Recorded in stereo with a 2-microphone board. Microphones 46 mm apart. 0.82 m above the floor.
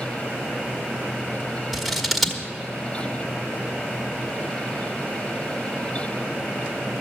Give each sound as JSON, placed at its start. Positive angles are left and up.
{"t": 1.7, "sound": "scissors", "side_deg": 0, "distance_m": 1.3}